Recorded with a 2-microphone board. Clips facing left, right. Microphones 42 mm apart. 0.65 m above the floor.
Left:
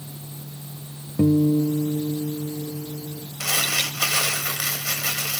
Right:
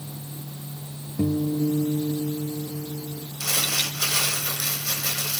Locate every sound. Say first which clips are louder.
1.2 s a guitar: left 5 dB; 30° left (ahead or behind), 0.6 m
3.4 s crumpling: left 3 dB; 70° left (ahead or behind), 3 m